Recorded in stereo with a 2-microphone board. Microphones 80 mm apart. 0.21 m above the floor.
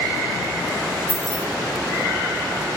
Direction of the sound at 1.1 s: 5° left (ahead or behind).